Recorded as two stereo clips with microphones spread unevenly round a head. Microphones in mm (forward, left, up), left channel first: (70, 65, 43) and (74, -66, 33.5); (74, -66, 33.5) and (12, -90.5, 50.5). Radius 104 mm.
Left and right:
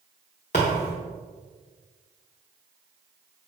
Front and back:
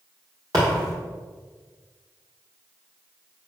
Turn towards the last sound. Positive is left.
turn(degrees=145)